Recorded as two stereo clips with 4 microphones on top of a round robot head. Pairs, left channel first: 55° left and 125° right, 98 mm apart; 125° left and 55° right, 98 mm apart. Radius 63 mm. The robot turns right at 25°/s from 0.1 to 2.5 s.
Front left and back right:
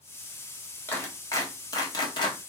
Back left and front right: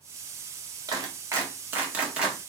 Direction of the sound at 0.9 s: 10° right.